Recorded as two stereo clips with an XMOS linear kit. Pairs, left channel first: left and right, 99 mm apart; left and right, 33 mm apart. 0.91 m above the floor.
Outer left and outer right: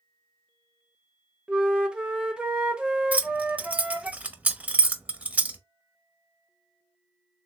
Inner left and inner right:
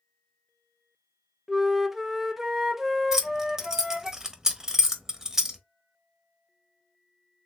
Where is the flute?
10° right (ahead or behind), 0.5 m.